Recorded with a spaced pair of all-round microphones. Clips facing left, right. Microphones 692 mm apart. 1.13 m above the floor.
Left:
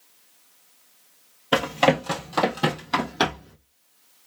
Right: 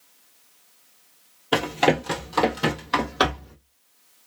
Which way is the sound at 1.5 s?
10° left (ahead or behind).